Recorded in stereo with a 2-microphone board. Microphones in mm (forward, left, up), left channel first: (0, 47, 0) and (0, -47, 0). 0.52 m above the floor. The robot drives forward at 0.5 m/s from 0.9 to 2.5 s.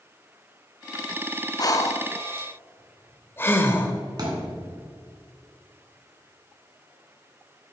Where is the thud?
45° right (ahead or behind), 2.5 m.